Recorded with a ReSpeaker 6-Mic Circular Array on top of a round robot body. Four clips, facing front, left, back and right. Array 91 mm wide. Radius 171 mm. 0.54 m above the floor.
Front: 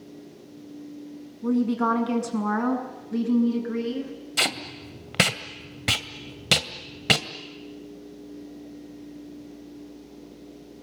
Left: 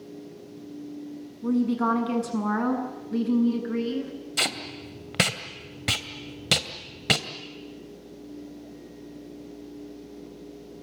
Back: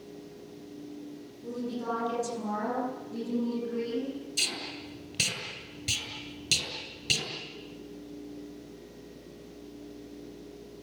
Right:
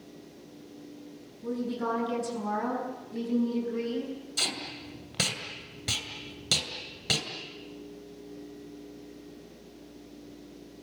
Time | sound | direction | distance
1.4 | a woman speaking | 30° left | 7 m
4.4 | tape being pulled | 30° left | 2 m